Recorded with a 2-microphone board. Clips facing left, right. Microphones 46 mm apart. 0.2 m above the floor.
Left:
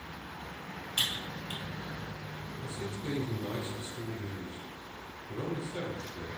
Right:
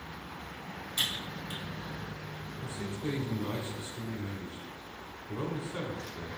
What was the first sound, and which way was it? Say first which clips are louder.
Typing on a keyboard: even; 55° left (ahead or behind).